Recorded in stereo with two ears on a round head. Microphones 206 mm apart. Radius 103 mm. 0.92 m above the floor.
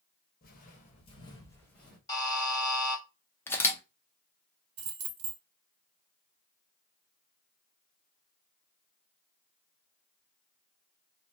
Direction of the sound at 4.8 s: 55° right (ahead or behind).